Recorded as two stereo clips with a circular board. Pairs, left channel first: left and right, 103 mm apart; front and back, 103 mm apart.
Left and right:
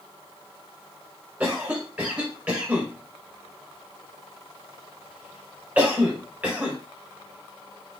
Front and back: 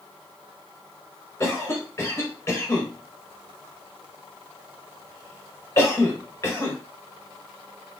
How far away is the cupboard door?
No cupboard door in this recording.